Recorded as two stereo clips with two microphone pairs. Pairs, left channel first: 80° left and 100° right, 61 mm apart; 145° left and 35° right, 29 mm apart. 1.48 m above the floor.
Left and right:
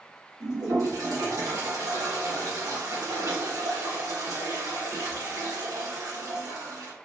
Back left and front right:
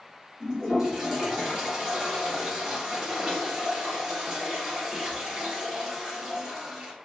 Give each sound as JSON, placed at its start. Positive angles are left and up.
{"t": 0.4, "sound": "a toilet flushing", "azimuth_deg": -105, "distance_m": 1.3}